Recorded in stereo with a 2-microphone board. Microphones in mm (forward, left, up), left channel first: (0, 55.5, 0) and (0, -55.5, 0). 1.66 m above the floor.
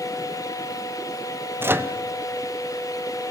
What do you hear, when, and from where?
1.6 s a microwave: 20° right (ahead or behind), 0.7 m